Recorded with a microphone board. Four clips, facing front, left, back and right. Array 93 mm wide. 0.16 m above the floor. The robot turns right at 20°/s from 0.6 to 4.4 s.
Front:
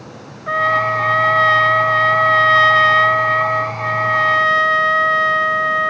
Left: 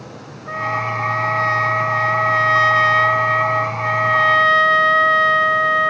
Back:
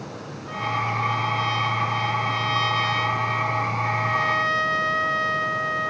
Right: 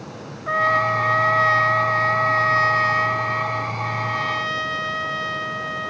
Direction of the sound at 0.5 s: 20° right.